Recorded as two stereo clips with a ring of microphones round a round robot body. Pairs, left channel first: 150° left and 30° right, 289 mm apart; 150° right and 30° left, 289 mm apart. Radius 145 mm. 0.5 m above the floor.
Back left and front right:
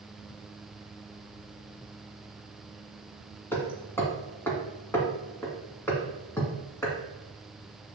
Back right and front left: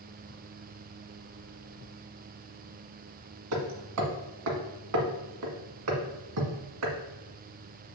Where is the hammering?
70° left, 1.5 m.